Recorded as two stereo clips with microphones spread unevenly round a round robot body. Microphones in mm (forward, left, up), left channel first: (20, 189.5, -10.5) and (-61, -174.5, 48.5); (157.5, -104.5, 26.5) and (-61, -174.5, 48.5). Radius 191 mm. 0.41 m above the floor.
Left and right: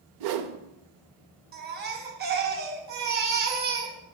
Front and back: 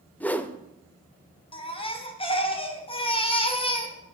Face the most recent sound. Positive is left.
turn(degrees=-35)